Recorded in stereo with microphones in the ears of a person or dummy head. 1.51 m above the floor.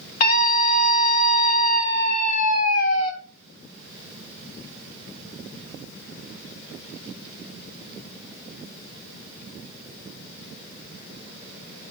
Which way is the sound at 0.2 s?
45° left (ahead or behind).